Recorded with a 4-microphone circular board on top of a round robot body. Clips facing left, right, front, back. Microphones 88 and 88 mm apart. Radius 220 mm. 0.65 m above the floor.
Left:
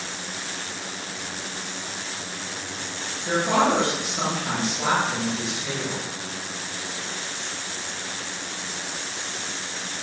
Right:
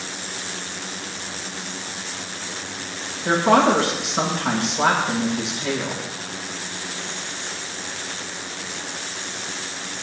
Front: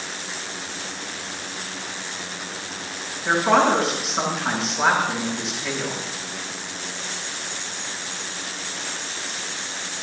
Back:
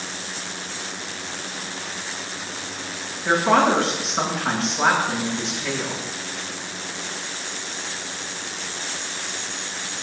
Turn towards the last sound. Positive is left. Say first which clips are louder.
# right 5 dB, even
turn(degrees=-90)